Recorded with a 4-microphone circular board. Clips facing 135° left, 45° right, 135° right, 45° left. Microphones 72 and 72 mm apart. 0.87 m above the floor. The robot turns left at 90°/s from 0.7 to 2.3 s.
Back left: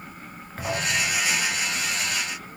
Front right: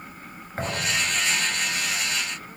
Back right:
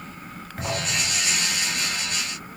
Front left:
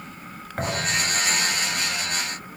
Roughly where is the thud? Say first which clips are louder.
Back left 1 dB, front left 2 dB; ahead.